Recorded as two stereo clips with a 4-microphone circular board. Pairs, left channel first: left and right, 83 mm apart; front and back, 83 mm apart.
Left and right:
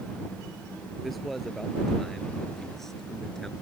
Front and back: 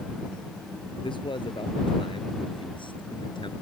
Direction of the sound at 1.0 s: Straight ahead.